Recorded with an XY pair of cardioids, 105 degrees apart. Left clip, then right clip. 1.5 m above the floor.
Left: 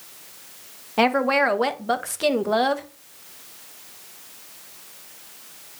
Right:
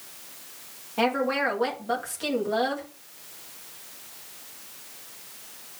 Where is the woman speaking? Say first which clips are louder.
Left 6 dB; 55° left, 1.6 m.